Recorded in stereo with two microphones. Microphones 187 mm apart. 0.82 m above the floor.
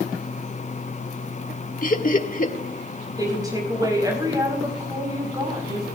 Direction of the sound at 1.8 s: 50° left (ahead or behind).